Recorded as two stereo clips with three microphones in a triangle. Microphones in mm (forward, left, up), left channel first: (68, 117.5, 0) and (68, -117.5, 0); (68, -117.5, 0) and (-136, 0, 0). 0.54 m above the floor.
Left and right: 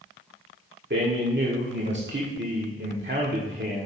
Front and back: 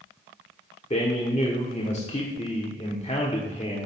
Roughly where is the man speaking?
Right.